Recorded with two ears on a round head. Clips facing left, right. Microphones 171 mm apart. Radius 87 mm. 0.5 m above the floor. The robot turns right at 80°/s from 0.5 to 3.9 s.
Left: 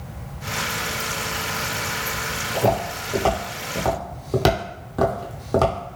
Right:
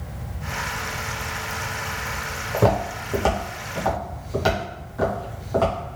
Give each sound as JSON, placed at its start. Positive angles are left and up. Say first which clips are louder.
{"t": 2.5, "sound": "footsteps", "louder": "right 1 dB", "side_deg": -70, "distance_m": 1.6}